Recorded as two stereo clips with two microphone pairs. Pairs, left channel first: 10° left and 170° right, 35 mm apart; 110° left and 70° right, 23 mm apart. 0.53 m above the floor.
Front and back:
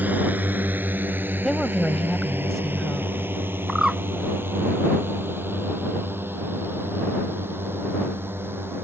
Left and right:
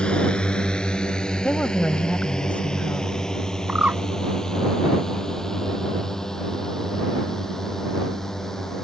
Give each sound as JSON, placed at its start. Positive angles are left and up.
{"t": 0.0, "sound": "a drone", "azimuth_deg": 150}
{"t": 1.4, "sound": "a woman speaking", "azimuth_deg": 95}
{"t": 3.7, "sound": "a bird", "azimuth_deg": -95}